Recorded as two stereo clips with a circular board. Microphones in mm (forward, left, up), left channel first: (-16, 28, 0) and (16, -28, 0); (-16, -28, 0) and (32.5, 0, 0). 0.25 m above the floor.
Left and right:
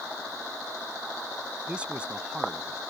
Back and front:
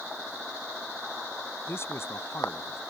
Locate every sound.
1.7 s a man speaking: 130° right